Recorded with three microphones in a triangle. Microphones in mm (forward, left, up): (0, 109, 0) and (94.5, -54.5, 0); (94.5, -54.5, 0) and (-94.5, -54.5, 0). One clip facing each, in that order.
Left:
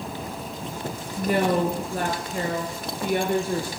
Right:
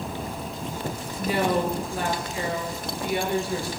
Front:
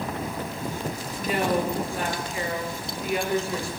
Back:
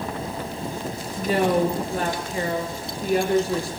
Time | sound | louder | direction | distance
1.2 | a woman speaking | left 2 dB, back 5 dB | 135° left | 3 m